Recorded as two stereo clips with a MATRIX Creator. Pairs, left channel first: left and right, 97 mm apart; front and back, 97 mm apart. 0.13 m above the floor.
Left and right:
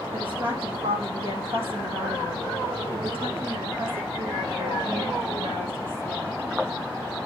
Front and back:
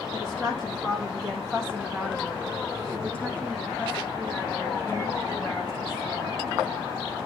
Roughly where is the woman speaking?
Right.